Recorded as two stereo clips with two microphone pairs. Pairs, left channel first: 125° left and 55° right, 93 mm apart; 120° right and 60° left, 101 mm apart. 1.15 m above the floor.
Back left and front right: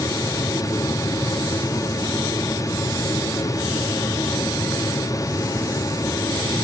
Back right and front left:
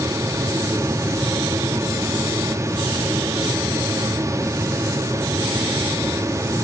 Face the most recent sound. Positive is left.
No sound to turn to.